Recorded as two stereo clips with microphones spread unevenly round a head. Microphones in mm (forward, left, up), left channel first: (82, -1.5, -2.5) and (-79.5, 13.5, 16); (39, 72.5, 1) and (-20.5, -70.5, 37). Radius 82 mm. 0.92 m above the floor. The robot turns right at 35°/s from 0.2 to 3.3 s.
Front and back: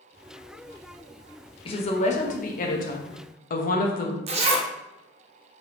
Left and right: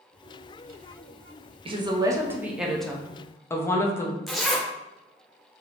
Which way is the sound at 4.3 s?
175° left.